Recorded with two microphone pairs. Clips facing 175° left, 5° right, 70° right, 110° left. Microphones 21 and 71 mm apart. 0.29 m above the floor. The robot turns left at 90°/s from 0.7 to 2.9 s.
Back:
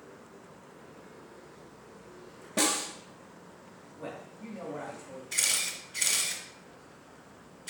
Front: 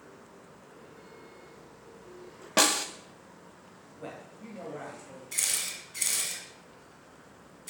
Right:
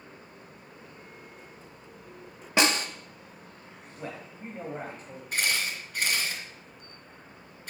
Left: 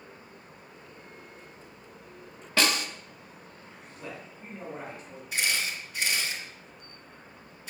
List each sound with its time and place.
2.6 s a snare drum: 5° right, 0.8 m; by 2.9 s 30° right, 0.8 m
4.0 s a man speaking: 85° right, 1.5 m
5.3 s a camera shutter: 110° right, 1.9 m